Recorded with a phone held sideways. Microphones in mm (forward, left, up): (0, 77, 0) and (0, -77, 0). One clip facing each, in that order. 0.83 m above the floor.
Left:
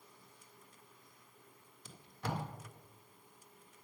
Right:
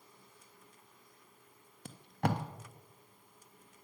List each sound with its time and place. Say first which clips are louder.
1.9 s tape being pulled: right 8 dB; 65° right (ahead or behind), 0.8 m